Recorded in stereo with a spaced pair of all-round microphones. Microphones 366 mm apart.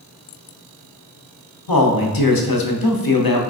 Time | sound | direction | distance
1.7 | a man speaking | 65° left (ahead or behind) | 0.6 m